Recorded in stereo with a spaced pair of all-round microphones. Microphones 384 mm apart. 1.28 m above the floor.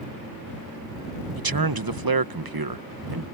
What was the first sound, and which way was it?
A man speaking, 65° right (ahead or behind).